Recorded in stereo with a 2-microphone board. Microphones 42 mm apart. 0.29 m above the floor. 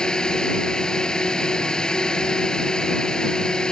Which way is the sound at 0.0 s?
15° left (ahead or behind).